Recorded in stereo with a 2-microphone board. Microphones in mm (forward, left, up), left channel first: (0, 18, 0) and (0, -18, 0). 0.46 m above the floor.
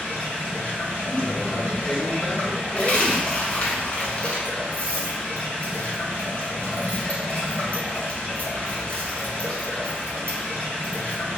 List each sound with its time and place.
0.0 s running water: 50° left (ahead or behind), 2.5 m
1.1 s a man speaking: 10° left (ahead or behind), 2.5 m
2.8 s a dropped coin: 35° left (ahead or behind), 1.3 m